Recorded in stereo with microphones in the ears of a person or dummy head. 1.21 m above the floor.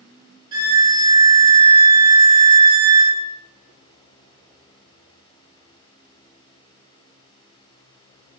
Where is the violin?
25° right (ahead or behind), 1.2 m.